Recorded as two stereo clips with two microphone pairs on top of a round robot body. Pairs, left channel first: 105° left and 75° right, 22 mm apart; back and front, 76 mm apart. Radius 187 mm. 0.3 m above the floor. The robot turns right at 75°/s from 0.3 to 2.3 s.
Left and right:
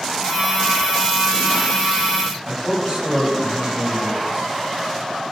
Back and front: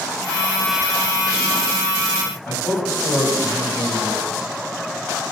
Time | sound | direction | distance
2.5 | a man speaking | 125° right | 4 m